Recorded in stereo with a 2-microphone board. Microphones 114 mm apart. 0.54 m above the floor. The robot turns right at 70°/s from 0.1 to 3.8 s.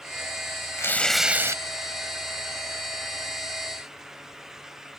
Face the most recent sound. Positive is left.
turn(degrees=5)